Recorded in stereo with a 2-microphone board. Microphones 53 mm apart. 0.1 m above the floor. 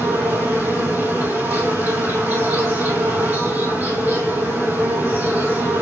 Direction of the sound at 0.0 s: 35° right (ahead or behind).